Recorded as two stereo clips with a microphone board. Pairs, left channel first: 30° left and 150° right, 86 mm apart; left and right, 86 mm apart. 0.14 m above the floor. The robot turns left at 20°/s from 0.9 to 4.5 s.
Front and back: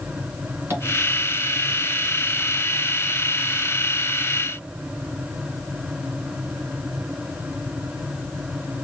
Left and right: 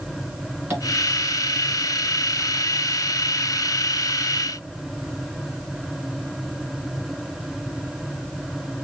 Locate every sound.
0.7 s tapping: 125° right, 1.9 m